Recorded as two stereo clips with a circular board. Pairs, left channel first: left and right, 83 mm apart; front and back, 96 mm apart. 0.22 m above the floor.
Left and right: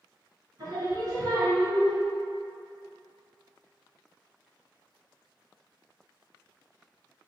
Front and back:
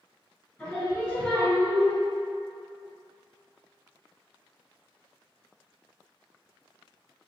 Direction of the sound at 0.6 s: 65° right.